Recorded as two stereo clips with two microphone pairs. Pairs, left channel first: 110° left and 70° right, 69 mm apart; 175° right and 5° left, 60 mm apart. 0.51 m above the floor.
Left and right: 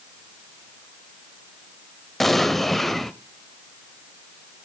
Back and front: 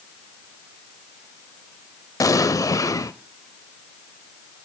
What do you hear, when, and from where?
2.2 s an explosion: 165° right, 0.6 m